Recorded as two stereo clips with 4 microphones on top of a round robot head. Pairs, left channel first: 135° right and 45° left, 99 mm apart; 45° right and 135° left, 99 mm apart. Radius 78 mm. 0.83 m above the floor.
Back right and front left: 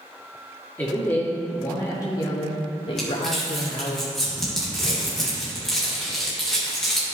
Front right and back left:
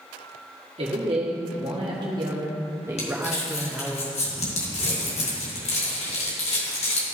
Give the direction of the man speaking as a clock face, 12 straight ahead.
7 o'clock.